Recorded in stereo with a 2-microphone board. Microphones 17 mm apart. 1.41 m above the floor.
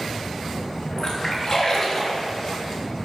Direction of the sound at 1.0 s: 45° left (ahead or behind).